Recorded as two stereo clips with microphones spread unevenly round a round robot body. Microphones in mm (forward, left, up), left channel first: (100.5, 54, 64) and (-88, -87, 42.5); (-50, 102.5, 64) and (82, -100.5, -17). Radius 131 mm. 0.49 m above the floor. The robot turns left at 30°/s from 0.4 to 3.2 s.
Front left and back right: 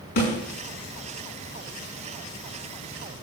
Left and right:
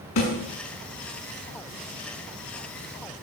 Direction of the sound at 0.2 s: 90° left.